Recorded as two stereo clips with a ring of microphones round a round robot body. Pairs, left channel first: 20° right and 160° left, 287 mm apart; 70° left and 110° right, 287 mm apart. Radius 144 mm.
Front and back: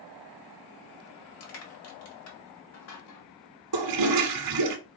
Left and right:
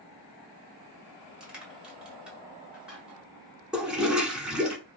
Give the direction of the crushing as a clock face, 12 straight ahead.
1 o'clock.